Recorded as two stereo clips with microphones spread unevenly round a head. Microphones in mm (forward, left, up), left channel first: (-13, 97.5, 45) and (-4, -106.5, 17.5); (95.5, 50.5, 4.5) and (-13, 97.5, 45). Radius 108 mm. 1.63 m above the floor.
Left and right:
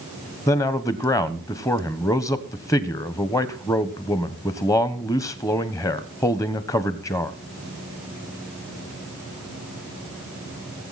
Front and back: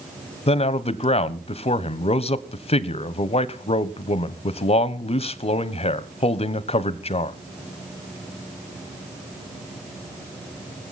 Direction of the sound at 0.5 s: 15° left.